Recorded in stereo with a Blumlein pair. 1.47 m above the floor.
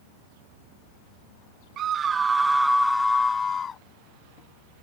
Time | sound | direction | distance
1.8 | a scream | 30° right | ?